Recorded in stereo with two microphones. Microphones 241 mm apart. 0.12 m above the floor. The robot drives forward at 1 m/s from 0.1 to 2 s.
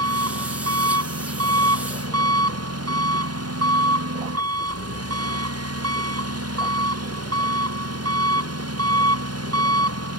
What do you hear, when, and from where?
0.0 s an engine running: 90° right; by 10.2 s 85° right